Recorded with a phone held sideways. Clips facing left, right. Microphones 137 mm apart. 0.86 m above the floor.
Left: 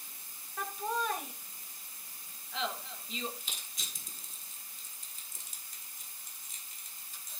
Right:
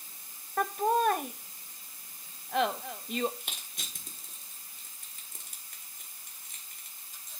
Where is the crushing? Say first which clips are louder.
Right 3 dB; 55° right (ahead or behind), 1.4 m.